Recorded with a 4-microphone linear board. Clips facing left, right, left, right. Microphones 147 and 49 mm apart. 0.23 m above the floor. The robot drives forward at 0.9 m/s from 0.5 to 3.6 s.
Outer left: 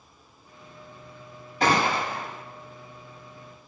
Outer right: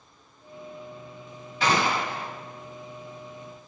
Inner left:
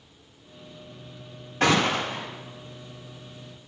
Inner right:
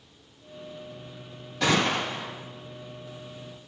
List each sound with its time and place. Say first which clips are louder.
1.6 s a gunshot: outer left 1 dB, inner left 2 dB; 45° left (ahead or behind), 6.5 m; by 2.3 s 40° left (ahead or behind), 7 m